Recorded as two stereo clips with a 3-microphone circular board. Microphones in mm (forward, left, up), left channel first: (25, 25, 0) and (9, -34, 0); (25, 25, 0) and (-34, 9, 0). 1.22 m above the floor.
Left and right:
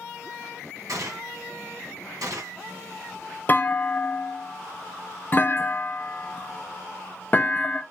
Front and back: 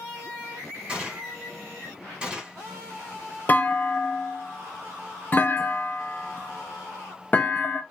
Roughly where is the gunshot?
Right.